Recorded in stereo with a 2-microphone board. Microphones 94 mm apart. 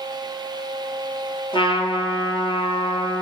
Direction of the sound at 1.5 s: 65° left (ahead or behind).